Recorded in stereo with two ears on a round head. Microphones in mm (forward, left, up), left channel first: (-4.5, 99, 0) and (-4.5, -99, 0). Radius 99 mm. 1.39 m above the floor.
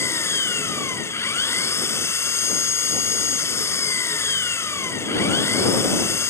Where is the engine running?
10° left (ahead or behind).